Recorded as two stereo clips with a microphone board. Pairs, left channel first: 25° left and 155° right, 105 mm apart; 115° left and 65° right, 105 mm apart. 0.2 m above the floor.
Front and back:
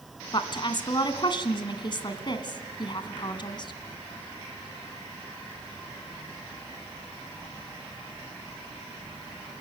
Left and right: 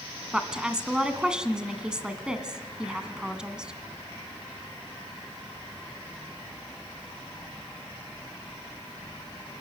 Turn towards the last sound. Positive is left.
turn(degrees=10)